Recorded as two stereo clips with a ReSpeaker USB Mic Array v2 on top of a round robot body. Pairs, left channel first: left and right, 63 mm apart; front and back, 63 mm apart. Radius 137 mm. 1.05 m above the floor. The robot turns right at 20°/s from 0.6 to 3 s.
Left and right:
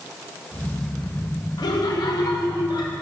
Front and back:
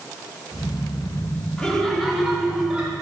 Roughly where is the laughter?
Left.